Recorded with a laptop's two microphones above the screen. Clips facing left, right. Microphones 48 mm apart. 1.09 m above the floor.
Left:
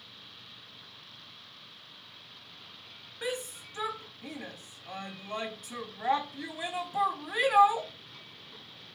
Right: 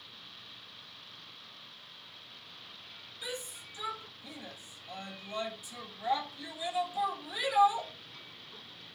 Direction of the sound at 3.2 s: 60° left (ahead or behind).